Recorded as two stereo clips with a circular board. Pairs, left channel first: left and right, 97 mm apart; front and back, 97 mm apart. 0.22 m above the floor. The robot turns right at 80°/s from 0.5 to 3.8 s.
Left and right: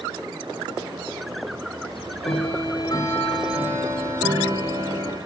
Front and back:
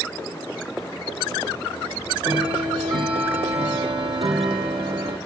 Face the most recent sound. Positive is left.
turn(degrees=-150)